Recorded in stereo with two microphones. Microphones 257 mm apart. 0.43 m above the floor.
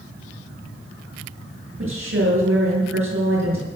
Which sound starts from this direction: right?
A woman speaking, at 1.8 s.